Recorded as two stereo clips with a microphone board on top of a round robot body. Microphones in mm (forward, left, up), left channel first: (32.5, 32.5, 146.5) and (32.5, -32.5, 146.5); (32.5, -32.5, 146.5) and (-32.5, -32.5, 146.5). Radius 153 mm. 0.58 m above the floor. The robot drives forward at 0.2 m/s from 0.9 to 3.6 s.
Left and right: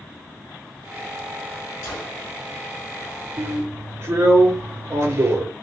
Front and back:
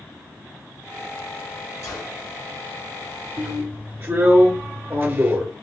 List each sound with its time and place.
1.8 s a gunshot: 45° left, 3.5 m; by 2.2 s 50° left, 3 m
3.4 s a drill: 130° right, 2 m